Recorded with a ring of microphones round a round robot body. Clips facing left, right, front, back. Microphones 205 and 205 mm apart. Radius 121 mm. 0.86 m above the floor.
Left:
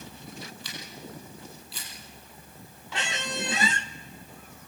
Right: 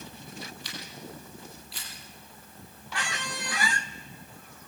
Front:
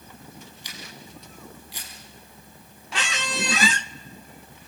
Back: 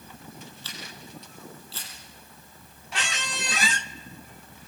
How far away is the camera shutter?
About 6 m.